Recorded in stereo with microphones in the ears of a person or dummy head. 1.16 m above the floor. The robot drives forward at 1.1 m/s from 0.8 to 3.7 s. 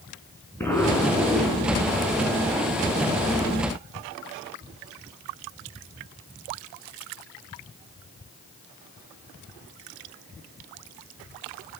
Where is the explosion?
5° left (ahead or behind), 4 m.